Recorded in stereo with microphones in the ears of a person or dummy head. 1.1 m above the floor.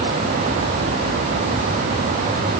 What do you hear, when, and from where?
Only background noise.